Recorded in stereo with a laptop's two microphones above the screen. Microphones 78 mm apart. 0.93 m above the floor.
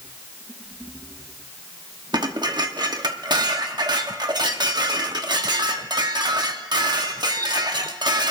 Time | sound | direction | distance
2.1 | dishes clattering | 65° right (ahead or behind) | 1.1 m